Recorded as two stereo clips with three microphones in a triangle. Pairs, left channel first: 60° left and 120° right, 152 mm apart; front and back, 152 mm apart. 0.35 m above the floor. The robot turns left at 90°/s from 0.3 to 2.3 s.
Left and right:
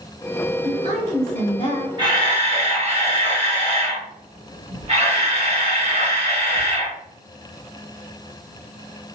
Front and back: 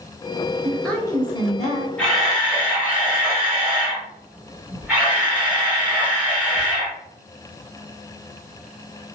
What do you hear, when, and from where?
0.6 s a woman speaking: 105° left, 1.2 m; by 1.9 s 10° right, 1.2 m
2.0 s a camera shutter: 75° right, 1.7 m; by 7.0 s 105° right, 1.7 m